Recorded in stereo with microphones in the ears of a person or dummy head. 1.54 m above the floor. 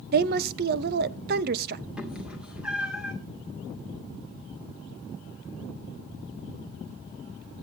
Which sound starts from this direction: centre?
A cat meowing, at 2.0 s.